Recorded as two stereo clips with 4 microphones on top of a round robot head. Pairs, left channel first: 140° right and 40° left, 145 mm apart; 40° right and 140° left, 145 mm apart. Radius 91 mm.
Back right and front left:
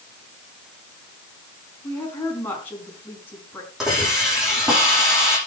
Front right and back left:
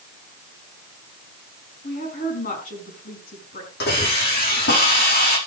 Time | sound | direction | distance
1.8 | a woman speaking | 65° right | 5 m
3.8 | a hiss | 50° right | 10 m